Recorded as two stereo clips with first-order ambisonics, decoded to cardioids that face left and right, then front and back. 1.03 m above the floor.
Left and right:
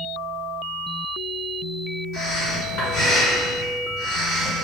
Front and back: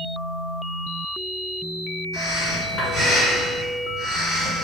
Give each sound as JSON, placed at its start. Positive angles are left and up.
{"t": 2.1, "sound": "breathing", "azimuth_deg": 65, "distance_m": 1.9}